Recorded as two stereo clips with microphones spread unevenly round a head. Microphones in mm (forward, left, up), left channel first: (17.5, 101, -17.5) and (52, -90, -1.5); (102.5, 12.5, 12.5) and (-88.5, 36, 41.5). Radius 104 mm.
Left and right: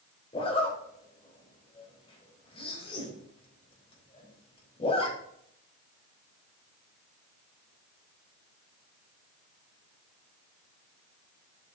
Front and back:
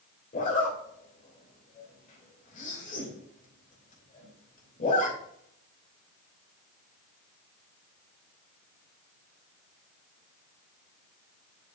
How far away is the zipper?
About 3 m.